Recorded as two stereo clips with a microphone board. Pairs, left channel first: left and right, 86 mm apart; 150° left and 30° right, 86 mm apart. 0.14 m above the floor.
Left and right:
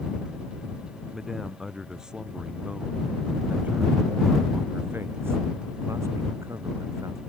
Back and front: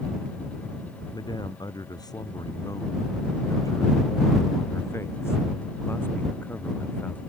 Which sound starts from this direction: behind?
A man speaking, at 1.1 s.